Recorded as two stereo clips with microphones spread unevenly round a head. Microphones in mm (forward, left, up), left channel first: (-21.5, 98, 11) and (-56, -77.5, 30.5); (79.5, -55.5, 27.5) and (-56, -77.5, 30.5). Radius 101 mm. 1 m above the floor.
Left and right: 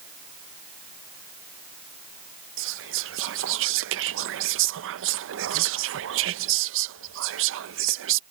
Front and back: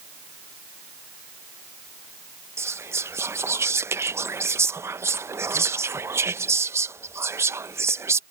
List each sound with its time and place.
2.6 s whispering: 100° right